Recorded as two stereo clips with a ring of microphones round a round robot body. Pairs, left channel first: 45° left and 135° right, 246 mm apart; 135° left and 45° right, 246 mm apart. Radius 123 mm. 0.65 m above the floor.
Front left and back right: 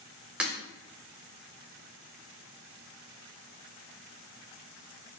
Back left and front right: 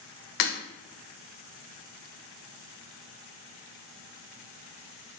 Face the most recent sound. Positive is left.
turn(degrees=140)